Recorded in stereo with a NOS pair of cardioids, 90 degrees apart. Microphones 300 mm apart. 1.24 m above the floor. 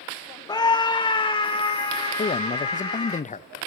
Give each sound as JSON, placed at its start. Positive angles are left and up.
{"t": 0.5, "sound": "a scream", "azimuth_deg": 15, "distance_m": 0.7}
{"t": 2.2, "sound": "a man speaking", "azimuth_deg": 25, "distance_m": 1.0}